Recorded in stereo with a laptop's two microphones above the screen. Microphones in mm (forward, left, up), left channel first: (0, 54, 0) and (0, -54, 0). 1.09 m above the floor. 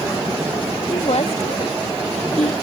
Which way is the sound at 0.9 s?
75° left (ahead or behind).